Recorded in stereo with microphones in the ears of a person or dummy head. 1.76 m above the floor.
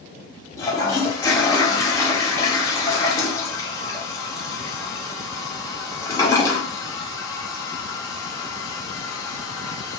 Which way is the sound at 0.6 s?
20° left (ahead or behind).